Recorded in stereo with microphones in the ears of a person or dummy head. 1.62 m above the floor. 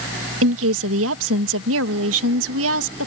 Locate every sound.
0.4 s a woman speaking: 80° right